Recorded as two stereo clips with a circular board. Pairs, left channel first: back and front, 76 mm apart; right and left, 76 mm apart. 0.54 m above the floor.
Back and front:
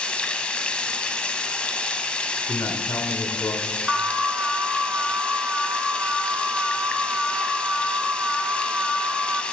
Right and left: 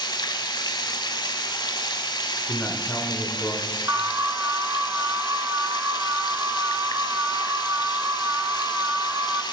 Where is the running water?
105° right, 0.9 m.